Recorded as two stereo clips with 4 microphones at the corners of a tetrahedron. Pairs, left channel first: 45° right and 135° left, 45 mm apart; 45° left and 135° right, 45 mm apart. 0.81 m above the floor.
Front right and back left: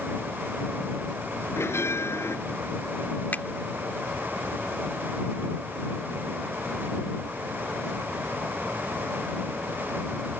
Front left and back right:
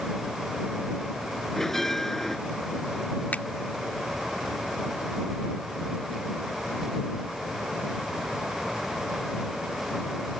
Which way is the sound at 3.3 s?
Straight ahead.